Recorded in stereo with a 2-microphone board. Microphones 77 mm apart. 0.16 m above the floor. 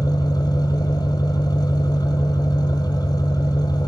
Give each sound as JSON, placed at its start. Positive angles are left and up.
{"t": 0.0, "sound": "an engine running", "side_deg": 65, "distance_m": 1.1}